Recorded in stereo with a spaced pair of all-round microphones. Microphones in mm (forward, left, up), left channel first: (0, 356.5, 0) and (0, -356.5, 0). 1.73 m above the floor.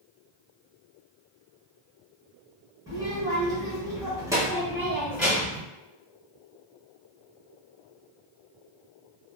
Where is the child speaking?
5° right (ahead or behind), 1.3 m; by 5.6 s centre (ahead or behind), 1.0 m.